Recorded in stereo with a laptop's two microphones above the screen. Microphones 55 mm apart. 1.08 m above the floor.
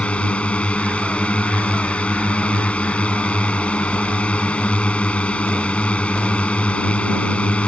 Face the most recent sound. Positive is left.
turn(degrees=20)  # may be behind; listen again after turning